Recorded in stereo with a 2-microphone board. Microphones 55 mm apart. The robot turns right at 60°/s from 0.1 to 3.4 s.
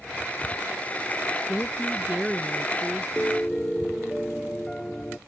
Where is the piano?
25° left (ahead or behind); by 5.2 s 15° left (ahead or behind).